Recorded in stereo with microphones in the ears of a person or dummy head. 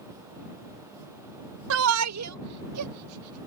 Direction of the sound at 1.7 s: 65° right (ahead or behind).